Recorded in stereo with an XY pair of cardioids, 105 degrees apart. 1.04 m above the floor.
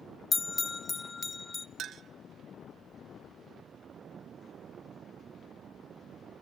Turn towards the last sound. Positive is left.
turn(degrees=-60)